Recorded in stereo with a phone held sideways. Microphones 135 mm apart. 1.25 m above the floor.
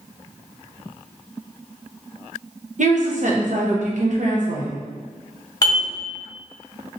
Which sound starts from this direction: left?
Dishes clattering, at 5.6 s.